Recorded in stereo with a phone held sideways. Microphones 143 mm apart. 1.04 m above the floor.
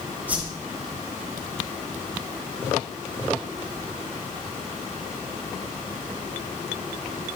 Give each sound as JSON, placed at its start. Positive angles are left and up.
{"t": 0.3, "sound": "a whoosh", "side_deg": -10, "distance_m": 6.5}